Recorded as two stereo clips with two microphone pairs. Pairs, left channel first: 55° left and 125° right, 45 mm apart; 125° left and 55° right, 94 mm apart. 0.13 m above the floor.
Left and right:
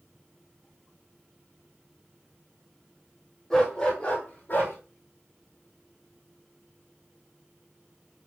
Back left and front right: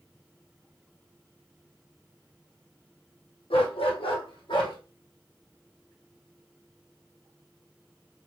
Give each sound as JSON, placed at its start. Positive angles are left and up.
{"t": 3.5, "sound": "a dog barking", "azimuth_deg": 135, "distance_m": 1.8}